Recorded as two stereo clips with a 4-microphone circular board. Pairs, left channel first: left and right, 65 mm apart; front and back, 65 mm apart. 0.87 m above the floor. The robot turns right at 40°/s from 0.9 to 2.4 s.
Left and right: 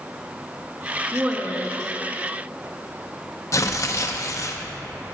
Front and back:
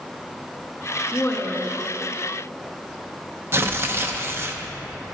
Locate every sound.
1.1 s a woman speaking: 55° right, 0.9 m; by 1.8 s 30° right, 0.9 m
3.5 s tearing paper: 130° left, 0.6 m